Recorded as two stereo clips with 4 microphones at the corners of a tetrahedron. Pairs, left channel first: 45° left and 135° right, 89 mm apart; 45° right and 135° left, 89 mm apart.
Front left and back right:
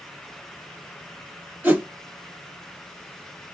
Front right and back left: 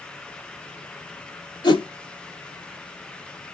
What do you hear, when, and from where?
1.6 s a whoosh: 65° right, 1.4 m